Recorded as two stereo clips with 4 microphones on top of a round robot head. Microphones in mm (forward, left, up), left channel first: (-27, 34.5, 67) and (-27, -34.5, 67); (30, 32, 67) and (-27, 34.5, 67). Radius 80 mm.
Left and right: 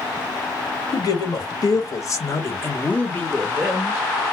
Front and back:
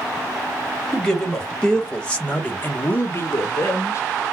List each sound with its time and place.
0.9 s a man speaking: 85° left, 1.6 m; by 4.0 s 15° right, 1.0 m